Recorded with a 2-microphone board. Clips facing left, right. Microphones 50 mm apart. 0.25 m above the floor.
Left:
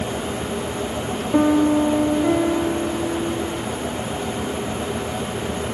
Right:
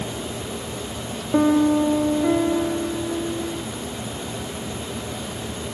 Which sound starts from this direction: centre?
A piano, at 1.3 s.